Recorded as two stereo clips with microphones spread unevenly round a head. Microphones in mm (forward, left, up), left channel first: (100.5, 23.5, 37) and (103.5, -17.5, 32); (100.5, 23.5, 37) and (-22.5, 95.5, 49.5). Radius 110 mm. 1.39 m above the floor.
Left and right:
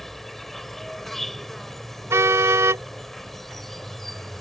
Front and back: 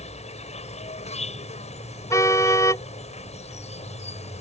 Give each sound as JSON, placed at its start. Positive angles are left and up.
{"t": 0.0, "sound": "an insect", "azimuth_deg": 10}
{"t": 2.1, "sound": "a car horn", "azimuth_deg": -110}